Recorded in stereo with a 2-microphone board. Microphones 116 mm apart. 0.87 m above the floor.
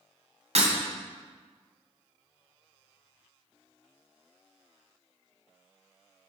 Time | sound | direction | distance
0.6 | breaking glass | 70° right (ahead or behind) | 2.5 m